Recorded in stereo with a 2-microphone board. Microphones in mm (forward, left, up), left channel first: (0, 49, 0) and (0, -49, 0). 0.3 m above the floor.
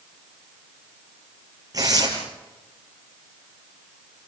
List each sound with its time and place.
1.7 s tearing paper: 40° right (ahead or behind), 6 m